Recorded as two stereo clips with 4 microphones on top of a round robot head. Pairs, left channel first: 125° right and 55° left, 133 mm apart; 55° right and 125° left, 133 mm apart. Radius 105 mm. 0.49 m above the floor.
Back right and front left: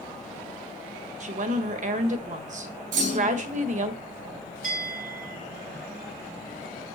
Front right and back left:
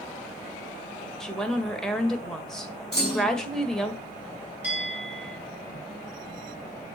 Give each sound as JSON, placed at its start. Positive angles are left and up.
{"t": 1.2, "sound": "a woman speaking", "azimuth_deg": 30, "distance_m": 1.9}
{"t": 2.9, "sound": "a clunk", "azimuth_deg": 30, "distance_m": 5.0}
{"t": 4.6, "sound": "a bell", "azimuth_deg": 50, "distance_m": 5.5}